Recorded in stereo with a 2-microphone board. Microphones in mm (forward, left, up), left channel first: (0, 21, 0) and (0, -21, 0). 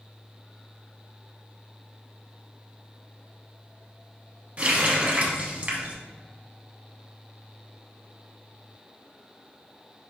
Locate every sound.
4.6 s a running tap: 30° right (ahead or behind), 0.8 m